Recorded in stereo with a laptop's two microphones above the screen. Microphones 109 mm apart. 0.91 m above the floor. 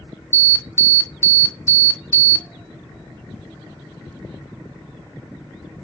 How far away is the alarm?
About 0.5 m.